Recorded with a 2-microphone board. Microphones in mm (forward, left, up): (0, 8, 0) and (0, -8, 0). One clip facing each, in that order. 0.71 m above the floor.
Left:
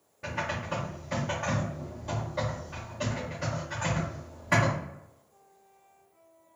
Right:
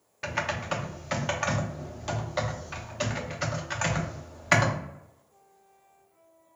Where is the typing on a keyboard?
55° right (ahead or behind), 0.6 m.